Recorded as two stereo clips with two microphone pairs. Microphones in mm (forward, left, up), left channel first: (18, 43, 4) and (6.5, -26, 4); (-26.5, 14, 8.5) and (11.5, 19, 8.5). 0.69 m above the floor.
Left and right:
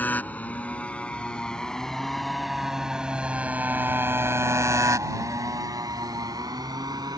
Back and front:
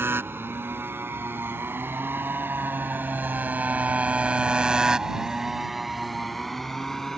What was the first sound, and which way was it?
A motorcycle, 15° left.